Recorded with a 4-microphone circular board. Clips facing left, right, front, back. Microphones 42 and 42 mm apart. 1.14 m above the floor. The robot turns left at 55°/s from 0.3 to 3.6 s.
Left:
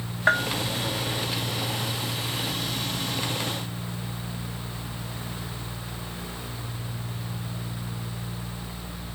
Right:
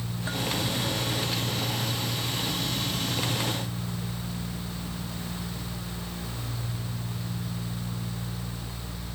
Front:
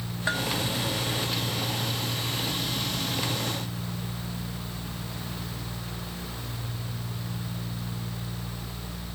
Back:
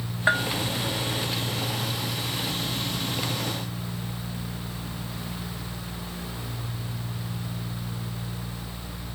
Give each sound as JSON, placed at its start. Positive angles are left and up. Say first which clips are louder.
{"t": 0.3, "sound": "a bell", "louder": "left 11 dB, back 6 dB", "azimuth_deg": 115}